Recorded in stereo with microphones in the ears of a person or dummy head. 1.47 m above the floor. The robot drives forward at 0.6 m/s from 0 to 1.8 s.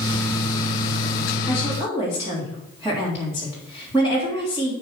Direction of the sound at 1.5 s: 15° right (ahead or behind).